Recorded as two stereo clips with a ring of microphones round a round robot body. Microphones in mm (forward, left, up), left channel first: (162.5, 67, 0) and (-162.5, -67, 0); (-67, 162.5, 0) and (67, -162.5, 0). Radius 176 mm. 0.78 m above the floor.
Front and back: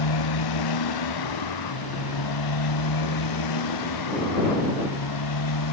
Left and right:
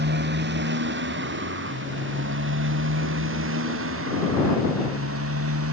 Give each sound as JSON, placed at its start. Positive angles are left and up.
{"t": 0.0, "sound": "a motorcycle", "azimuth_deg": -5}